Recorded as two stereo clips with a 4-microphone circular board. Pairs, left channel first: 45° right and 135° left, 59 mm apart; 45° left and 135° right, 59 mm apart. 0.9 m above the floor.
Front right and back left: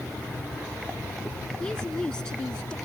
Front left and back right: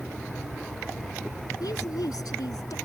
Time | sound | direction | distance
1.6 | a woman speaking | 35° left | ?